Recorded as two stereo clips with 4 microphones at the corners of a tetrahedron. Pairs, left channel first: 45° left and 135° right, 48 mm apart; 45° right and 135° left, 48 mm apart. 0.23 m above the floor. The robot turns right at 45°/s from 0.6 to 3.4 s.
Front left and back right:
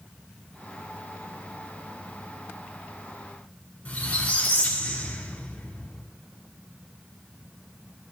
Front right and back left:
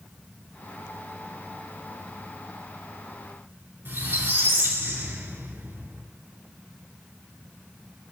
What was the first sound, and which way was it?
A squeak, 105° left.